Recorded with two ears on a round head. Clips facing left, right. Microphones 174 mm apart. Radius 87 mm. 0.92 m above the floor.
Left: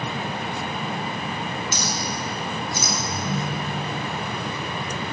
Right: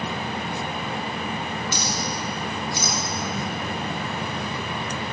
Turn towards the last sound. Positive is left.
turn(degrees=70)  # may be behind; listen again after turning